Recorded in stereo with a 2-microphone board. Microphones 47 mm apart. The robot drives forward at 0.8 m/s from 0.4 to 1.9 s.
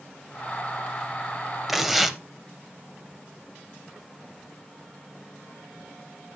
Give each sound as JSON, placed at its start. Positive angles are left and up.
{"t": 1.7, "sound": "tearing paper", "side_deg": -5, "distance_m": 0.6}